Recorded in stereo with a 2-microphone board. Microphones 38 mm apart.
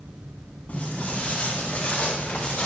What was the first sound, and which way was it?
Footsteps, 35° left (ahead or behind).